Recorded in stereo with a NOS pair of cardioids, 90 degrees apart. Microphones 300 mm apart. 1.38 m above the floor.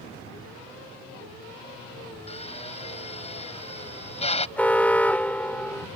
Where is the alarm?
5° left.